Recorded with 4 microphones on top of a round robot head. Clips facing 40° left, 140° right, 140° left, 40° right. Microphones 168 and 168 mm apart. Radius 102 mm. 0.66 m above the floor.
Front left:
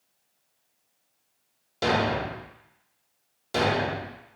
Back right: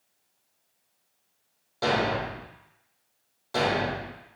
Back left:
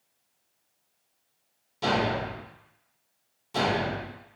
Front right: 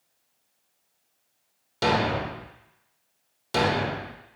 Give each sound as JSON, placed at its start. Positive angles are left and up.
{"t": 1.8, "sound": "a thud", "azimuth_deg": -30, "distance_m": 0.5}